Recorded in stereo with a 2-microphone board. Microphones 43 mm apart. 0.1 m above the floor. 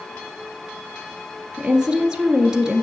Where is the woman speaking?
15° right (ahead or behind), 1.5 m.